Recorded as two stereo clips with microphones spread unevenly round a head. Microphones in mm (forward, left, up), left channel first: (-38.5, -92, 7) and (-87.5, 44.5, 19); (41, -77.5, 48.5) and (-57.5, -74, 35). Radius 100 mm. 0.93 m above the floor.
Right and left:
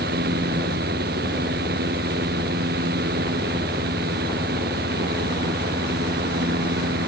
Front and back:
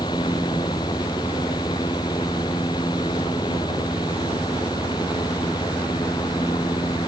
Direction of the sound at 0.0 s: 65° left.